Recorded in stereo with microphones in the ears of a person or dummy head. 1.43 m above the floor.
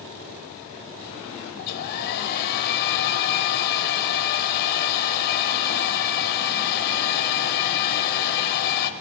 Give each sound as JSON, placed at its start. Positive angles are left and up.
{"t": 1.6, "sound": "a hair dryer", "side_deg": 55, "distance_m": 0.7}